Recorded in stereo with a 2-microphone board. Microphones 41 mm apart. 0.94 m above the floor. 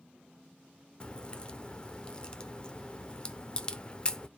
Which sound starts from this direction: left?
A crack, at 1.0 s.